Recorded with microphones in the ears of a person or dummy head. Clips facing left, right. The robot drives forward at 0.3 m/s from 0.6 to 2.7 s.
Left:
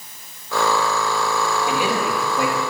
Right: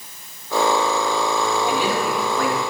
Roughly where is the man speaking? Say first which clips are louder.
Even; centre.